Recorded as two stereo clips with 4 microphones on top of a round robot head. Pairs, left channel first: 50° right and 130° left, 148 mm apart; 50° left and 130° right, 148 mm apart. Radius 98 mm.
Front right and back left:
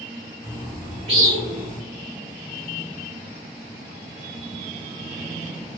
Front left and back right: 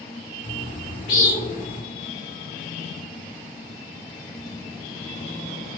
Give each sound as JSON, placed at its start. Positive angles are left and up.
{"t": 0.4, "sound": "a bird", "azimuth_deg": 80, "distance_m": 1.8}